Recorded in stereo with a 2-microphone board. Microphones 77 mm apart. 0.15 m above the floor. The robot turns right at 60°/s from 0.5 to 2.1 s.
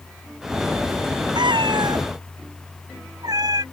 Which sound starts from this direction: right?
A cat meowing, at 1.4 s.